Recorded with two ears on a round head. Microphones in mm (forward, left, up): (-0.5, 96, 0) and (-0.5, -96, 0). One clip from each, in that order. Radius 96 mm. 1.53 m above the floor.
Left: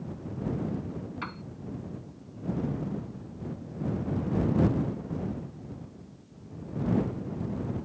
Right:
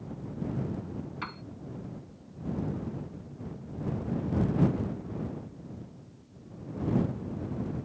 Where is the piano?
10° right (ahead or behind).